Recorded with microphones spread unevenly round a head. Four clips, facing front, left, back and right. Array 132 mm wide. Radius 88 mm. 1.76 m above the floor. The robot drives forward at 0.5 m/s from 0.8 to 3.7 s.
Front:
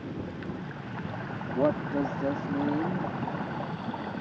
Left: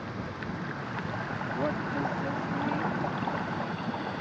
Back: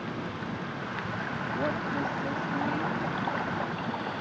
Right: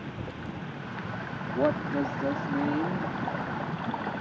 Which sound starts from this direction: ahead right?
A woman speaking, at 1.5 s.